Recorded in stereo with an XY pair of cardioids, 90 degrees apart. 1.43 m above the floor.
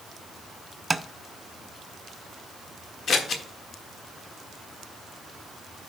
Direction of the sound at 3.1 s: 60° left.